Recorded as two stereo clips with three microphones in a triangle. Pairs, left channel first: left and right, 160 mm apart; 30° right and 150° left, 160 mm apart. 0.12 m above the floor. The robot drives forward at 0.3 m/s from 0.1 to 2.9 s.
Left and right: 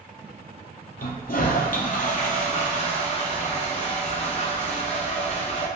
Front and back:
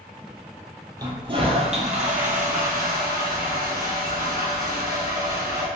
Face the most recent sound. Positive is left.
turn(degrees=135)